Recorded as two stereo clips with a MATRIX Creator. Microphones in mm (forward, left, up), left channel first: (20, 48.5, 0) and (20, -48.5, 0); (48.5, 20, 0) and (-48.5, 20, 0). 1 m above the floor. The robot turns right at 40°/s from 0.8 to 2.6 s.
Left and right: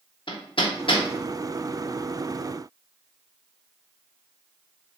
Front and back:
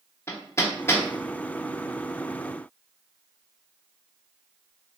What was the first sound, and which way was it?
Hammering, 60° left.